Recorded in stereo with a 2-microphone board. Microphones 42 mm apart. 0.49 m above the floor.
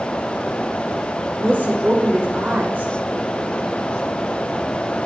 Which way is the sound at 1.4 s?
40° right (ahead or behind).